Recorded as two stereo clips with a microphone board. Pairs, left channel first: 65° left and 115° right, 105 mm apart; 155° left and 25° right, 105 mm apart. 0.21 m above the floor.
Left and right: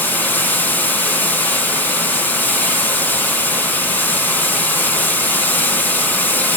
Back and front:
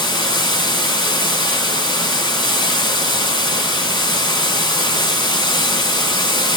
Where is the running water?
135° left, 1.6 m.